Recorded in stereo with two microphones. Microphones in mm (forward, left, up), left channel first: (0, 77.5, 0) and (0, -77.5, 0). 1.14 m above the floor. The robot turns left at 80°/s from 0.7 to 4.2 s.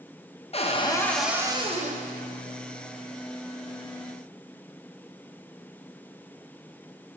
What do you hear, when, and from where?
0.5 s a cupboard door: 40° left, 0.7 m; by 2.0 s 65° right, 0.7 m